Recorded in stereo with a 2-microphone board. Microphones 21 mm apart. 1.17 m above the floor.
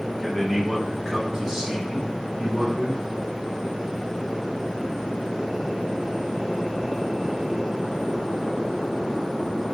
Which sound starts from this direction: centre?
A man speaking, at 0.2 s.